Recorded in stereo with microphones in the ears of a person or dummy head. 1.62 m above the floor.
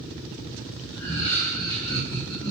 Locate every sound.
0.9 s laughter: 45° left (ahead or behind), 2.5 m; by 2.5 s 10° left (ahead or behind), 3 m